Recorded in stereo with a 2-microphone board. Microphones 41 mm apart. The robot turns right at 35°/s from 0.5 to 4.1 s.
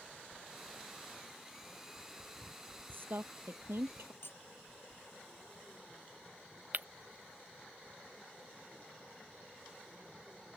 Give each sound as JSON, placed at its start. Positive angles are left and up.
{"t": 2.9, "sound": "a woman speaking", "side_deg": -55}
{"t": 4.2, "sound": "cutlery clinking", "side_deg": 60}
{"t": 6.7, "sound": "breaking glass", "side_deg": -45}